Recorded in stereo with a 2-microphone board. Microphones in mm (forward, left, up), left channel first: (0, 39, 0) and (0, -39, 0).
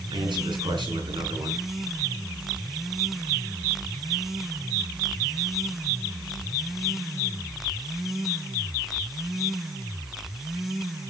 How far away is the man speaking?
About 4.5 m.